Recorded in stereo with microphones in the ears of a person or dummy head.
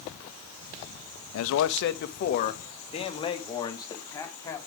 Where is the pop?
I don't hear a pop.